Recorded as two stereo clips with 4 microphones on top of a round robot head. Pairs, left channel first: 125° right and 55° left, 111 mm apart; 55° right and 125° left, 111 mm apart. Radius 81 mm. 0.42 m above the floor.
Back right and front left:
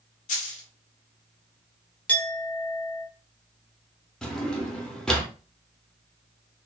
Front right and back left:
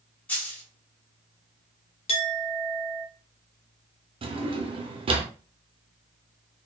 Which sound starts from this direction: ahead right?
A clink, at 2.1 s.